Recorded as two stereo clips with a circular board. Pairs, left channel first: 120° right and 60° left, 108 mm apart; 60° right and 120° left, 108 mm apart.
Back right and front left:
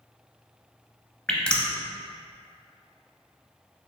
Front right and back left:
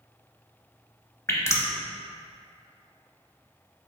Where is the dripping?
50° right, 0.5 m.